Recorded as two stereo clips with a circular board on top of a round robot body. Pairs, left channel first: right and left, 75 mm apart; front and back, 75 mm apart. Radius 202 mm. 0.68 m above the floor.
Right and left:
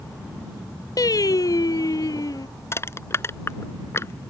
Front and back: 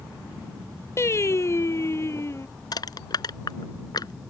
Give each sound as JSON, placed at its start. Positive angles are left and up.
{"t": 1.0, "sound": "singing", "azimuth_deg": -50}
{"t": 2.7, "sound": "crushing", "azimuth_deg": -35}